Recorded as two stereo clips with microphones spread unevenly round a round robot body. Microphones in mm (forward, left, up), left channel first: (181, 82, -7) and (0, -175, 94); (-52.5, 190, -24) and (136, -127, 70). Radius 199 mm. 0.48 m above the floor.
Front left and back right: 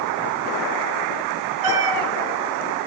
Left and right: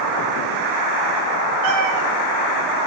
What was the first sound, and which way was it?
A cat meowing, 105° right.